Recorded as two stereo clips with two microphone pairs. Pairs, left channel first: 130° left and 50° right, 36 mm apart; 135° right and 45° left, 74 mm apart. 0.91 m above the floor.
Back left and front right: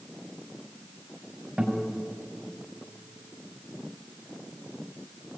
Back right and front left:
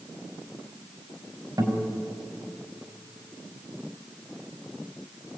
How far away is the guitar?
About 4.5 m.